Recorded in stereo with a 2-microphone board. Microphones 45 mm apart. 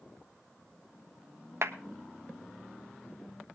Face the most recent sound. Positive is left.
turn(degrees=-65)  # may be behind; listen again after turning